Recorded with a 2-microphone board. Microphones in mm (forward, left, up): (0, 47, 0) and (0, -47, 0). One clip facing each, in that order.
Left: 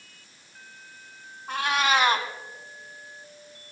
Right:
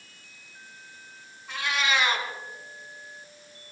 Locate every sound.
1.5 s a cat meowing: 45° left (ahead or behind), 1.7 m